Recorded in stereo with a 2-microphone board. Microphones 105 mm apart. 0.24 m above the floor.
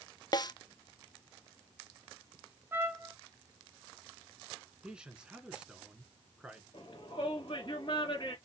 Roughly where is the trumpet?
Right.